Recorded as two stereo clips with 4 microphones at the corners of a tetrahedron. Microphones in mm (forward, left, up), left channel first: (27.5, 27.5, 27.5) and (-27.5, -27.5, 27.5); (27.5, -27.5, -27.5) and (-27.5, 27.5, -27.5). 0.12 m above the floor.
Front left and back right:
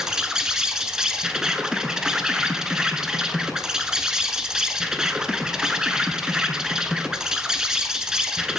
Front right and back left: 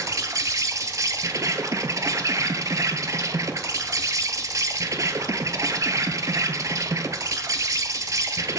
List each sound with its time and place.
0.0 s an insect: 145° left, 0.7 m